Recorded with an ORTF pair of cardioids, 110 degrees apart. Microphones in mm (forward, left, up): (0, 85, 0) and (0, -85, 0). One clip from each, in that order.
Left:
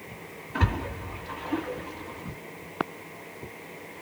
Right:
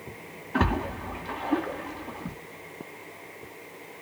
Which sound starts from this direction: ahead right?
A splash, at 0.5 s.